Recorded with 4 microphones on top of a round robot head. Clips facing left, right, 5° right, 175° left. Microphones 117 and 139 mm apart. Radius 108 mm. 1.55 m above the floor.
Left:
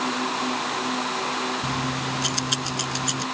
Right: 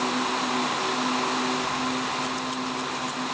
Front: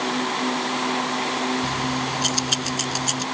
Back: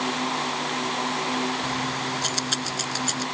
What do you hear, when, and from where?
1.6 s keys jangling: 75° left; by 3.2 s 70° left